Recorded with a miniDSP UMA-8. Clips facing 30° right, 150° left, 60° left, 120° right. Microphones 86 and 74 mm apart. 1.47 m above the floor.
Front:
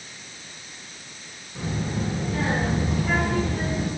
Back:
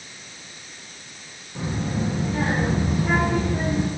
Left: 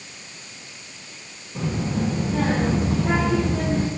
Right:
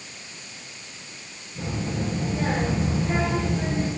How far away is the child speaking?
About 7 m.